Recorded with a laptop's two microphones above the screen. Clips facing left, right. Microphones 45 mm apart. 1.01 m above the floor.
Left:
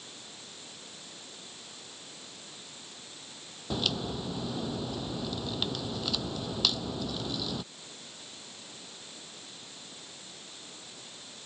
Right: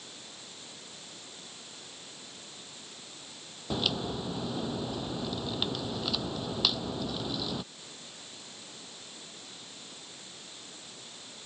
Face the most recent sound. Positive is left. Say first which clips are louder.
# right 1 dB
turn(degrees=-5)  # may be behind; listen again after turning